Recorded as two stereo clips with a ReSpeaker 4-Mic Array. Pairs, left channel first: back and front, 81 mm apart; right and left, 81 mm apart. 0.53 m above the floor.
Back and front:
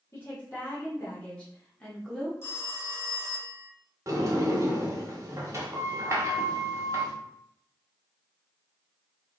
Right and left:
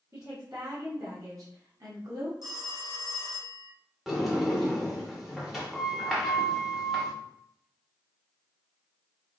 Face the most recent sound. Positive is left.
turn(degrees=5)